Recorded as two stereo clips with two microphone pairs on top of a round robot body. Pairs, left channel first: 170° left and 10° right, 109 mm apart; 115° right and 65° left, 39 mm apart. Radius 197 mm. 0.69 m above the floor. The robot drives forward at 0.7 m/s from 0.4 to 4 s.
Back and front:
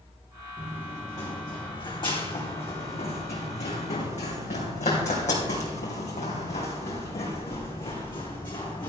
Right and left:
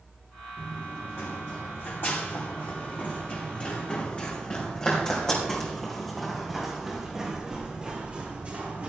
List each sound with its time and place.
0.6 s running footsteps: 120° right, 2.5 m; by 8.9 s 120° left, 2.5 m